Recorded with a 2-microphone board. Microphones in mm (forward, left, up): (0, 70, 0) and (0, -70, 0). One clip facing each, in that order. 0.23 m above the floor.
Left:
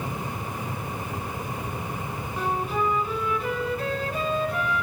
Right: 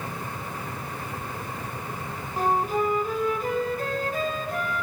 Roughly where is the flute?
Right.